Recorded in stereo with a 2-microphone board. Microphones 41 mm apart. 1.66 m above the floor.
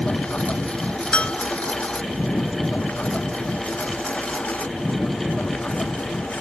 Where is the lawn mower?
25° left (ahead or behind); by 6.4 s 30° left (ahead or behind).